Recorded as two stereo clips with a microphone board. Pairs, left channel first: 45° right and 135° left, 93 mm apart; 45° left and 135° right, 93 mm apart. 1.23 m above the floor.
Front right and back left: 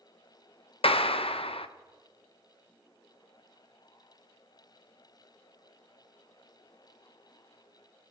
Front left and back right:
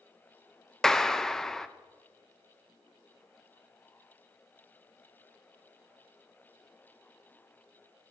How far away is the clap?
About 0.6 m.